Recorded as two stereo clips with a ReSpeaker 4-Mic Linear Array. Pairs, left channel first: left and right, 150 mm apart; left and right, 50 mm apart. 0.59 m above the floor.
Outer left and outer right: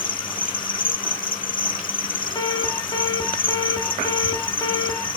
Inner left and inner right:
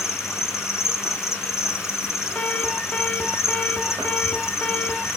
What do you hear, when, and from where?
0.0 s an insect: 65° left (ahead or behind), 1.2 m
2.4 s an alarm: 30° left (ahead or behind), 1.9 m